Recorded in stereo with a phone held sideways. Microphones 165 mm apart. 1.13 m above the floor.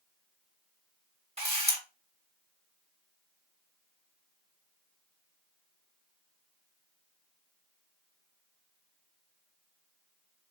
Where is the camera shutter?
35° right (ahead or behind), 1.2 m.